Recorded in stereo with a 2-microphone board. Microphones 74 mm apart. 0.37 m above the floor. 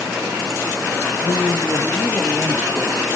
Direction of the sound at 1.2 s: 40° left (ahead or behind).